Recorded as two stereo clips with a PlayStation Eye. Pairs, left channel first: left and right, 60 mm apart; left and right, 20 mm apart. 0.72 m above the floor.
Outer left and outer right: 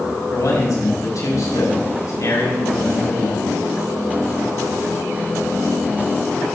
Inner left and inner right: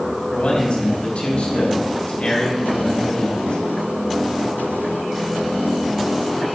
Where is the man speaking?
70° left (ahead or behind), 5 m.